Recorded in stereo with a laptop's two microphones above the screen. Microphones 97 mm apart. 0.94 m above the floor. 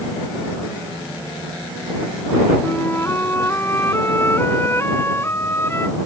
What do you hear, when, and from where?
2.6 s a flute: 25° left (ahead or behind)